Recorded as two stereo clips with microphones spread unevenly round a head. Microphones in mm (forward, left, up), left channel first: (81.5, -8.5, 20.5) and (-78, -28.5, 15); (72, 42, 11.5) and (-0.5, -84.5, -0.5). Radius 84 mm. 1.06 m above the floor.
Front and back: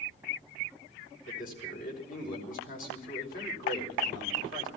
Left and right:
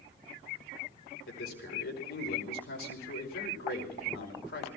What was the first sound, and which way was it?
A man speaking, 50° left.